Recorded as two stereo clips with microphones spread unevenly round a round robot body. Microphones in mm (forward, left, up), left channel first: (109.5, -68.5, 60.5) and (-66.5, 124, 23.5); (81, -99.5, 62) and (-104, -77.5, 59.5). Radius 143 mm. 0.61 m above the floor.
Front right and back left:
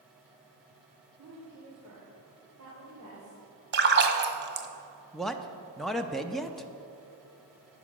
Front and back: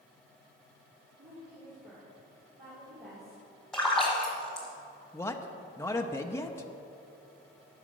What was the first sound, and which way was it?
A woman speaking, 125° left.